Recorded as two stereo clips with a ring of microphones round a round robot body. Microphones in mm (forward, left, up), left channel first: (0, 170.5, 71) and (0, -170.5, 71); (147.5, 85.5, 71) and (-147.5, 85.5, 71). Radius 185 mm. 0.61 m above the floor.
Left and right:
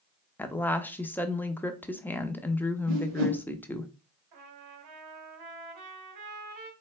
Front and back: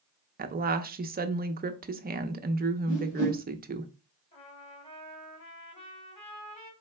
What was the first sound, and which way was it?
A woman speaking, 170° left.